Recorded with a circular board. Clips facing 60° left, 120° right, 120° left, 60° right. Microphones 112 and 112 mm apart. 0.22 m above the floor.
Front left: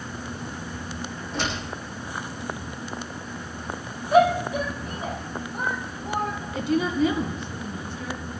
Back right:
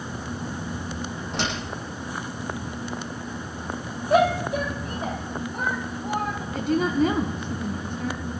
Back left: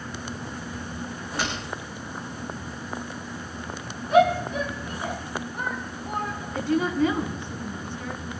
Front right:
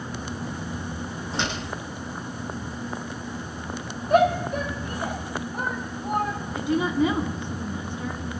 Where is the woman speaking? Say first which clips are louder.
Back right 1 dB, even; 130° right, 1.9 m.